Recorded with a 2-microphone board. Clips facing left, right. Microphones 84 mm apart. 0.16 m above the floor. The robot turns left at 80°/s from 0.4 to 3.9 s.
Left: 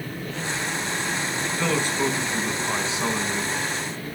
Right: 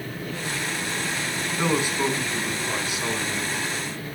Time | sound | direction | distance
1.6 | a man speaking | 20° right (ahead or behind) | 1.6 m